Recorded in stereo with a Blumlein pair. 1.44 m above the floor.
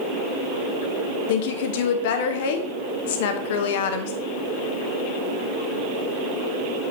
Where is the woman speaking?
50° left, 1.0 m.